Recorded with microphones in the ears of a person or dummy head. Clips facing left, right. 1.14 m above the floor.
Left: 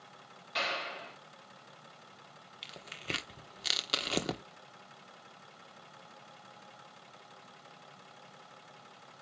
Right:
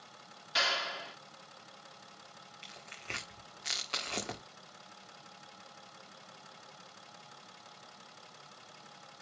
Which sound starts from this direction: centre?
A clap, at 0.6 s.